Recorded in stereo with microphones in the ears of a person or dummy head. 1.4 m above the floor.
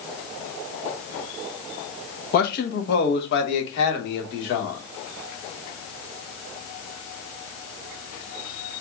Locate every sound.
2.3 s a man speaking: 50° left (ahead or behind), 1.2 m; by 4.8 s 65° left (ahead or behind), 2.5 m